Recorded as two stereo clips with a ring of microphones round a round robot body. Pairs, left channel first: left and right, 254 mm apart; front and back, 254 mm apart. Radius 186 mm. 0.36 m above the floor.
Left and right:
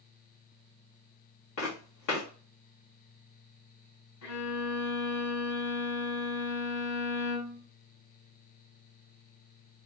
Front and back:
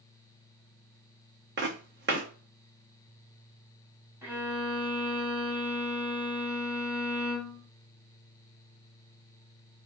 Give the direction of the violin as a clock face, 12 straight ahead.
9 o'clock.